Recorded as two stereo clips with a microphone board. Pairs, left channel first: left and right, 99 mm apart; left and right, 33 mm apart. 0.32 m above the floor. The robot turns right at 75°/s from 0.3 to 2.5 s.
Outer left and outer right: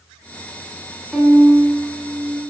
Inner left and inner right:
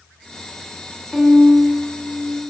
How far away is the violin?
About 1.5 m.